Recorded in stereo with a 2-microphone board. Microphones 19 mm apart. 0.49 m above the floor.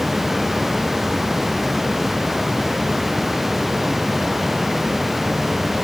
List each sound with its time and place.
Only background noise.